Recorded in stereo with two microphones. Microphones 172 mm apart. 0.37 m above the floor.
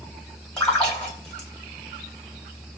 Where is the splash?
5° left (ahead or behind), 1.3 m.